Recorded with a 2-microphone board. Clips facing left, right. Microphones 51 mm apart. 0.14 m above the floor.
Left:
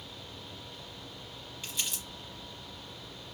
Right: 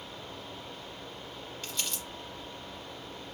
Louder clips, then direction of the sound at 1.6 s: Even; 15° left (ahead or behind).